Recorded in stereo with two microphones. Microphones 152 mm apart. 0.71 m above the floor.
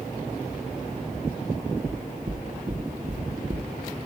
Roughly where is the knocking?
Right.